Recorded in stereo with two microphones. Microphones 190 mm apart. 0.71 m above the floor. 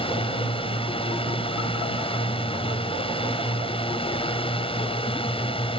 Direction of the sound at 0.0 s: 30° left (ahead or behind).